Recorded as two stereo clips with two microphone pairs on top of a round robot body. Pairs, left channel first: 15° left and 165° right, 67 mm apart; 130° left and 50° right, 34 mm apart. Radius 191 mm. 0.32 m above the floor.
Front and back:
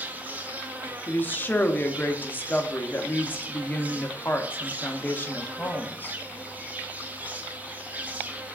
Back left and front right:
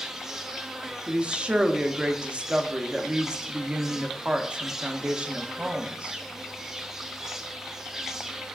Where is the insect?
120° right, 0.8 m.